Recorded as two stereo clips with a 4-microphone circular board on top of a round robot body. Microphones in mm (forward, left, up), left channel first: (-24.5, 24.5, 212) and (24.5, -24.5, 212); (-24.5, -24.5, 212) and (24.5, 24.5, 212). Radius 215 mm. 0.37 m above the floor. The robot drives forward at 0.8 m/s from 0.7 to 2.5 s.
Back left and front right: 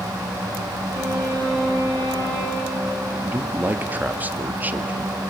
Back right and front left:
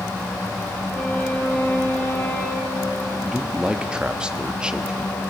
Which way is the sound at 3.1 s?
20° right.